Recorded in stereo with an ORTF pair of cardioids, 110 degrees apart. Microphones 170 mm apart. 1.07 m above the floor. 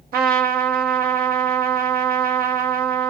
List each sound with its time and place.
0.1 s a trumpet: 60° right, 1.0 m